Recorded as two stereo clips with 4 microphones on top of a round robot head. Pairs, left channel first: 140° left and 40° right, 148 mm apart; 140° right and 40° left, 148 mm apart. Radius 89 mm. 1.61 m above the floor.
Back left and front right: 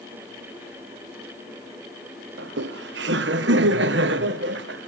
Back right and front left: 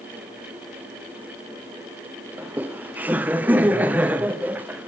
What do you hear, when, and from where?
2.4 s laughter: 40° right, 0.8 m